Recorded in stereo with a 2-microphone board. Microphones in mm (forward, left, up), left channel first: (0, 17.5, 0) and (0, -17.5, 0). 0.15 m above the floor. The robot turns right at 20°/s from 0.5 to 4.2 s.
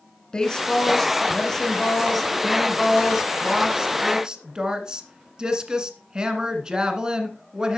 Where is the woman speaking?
145° left, 1.5 m; by 7.8 s 140° right, 1.5 m.